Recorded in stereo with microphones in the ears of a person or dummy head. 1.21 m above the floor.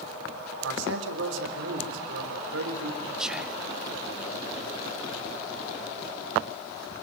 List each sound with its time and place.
0.6 s a man speaking: 80° right, 3.5 m
3.2 s whispering: centre (ahead or behind), 0.6 m